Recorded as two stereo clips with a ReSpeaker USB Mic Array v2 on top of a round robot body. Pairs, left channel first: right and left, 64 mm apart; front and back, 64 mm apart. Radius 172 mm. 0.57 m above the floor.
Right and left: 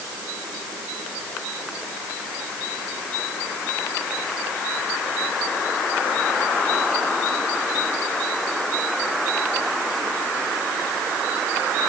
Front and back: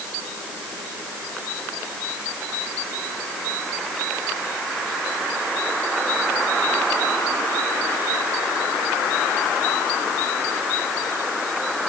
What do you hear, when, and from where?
Only background noise.